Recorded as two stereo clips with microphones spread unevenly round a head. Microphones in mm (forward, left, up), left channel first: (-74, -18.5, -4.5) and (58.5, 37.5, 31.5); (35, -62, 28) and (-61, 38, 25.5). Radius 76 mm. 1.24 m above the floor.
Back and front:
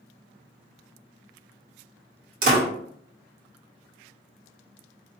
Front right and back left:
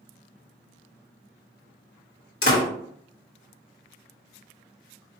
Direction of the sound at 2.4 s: 15° right.